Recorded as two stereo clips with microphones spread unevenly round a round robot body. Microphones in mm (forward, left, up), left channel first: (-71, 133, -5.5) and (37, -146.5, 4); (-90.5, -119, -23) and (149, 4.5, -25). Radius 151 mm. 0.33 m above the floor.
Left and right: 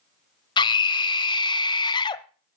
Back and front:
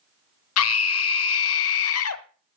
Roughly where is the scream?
Behind.